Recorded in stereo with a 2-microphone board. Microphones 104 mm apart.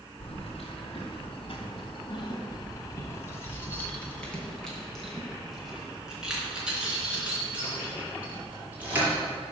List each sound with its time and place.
0.2 s keys jangling: 75° left (ahead or behind), 2.0 m; by 9.1 s 20° right (ahead or behind), 4.5 m